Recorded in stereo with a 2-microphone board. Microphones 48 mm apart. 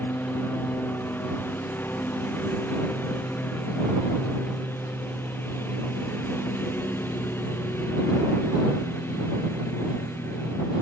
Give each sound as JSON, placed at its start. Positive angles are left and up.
{"t": 0.0, "sound": "a lawn mower", "side_deg": 45}